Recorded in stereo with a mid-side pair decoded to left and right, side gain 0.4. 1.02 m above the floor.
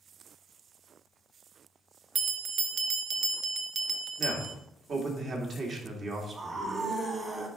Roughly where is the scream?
Ahead right.